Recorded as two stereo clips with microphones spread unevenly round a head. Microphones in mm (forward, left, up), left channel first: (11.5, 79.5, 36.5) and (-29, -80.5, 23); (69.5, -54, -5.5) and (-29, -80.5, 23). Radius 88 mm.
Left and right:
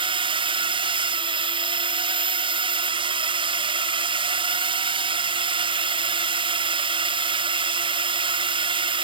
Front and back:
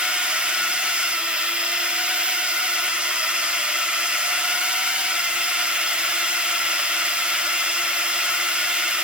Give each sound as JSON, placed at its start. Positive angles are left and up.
{"t": 0.0, "sound": "a drone", "azimuth_deg": -70}